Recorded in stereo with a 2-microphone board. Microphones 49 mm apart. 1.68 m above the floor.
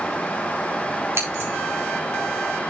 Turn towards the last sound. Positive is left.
turn(degrees=-60)  # may be behind; listen again after turning